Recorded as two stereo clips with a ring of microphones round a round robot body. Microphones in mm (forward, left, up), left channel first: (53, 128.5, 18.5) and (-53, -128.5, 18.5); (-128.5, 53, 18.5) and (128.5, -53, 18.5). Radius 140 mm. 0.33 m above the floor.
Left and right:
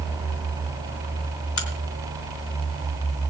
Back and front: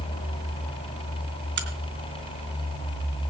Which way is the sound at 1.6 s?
30° left.